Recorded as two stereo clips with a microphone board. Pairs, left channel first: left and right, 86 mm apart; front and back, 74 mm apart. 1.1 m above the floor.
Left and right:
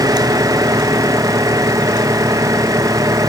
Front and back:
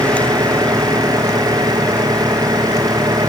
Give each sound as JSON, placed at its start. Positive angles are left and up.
{"t": 0.0, "sound": "an engine running", "azimuth_deg": -145}